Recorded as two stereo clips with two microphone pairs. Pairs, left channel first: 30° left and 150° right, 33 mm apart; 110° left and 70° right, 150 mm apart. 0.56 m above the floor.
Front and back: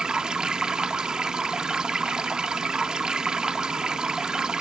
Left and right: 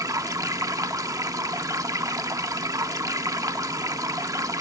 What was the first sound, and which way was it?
Running water, 115° right.